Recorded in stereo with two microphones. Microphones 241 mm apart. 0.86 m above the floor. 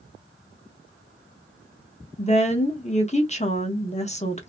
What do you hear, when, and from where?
2.2 s a woman speaking: 30° left (ahead or behind), 0.9 m